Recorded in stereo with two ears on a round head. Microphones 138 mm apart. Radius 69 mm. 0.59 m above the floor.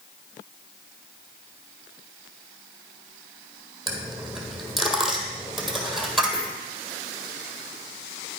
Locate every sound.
3.9 s a dropped coin: centre (ahead or behind), 1.8 m